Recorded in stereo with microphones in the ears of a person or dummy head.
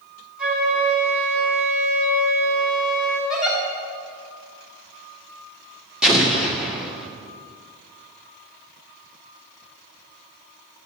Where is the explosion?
Centre (ahead or behind), 1.7 m.